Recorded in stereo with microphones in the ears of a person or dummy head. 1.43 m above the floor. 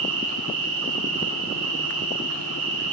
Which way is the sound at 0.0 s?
35° right (ahead or behind).